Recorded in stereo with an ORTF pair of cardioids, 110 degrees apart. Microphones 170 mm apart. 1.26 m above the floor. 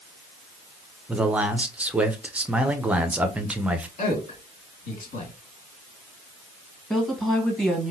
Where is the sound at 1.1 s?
10° right, 0.6 m.